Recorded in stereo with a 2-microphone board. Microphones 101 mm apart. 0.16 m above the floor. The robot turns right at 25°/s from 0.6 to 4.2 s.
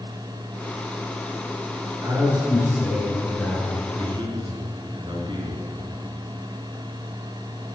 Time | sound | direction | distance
2.0 | a man speaking | 40° right | 2.5 m
4.0 | a man speaking | 50° right (ahead or behind) | 2 m